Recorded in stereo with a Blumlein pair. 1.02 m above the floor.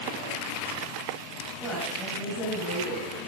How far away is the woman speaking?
About 8 m.